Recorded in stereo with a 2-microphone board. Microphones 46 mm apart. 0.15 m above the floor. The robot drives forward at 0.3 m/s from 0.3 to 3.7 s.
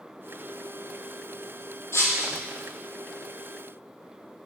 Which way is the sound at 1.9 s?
75° left (ahead or behind).